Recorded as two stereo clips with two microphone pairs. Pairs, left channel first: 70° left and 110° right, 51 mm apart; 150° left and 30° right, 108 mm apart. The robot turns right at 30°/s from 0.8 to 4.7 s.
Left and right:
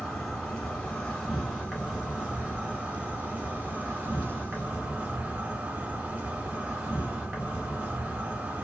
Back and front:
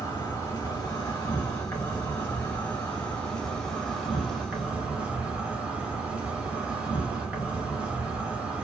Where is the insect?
150° left, 1.0 m; by 8.7 s 95° right, 1.0 m.